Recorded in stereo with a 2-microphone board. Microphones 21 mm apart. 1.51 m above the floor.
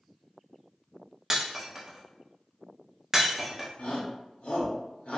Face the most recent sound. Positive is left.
turn(degrees=80)